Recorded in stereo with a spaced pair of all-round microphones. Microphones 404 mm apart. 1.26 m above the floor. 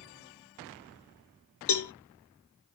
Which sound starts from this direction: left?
A cowbell, at 1.7 s.